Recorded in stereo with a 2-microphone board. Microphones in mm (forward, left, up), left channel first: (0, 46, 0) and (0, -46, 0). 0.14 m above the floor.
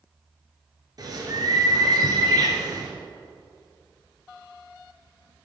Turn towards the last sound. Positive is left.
turn(degrees=-50)  # may be behind; listen again after turning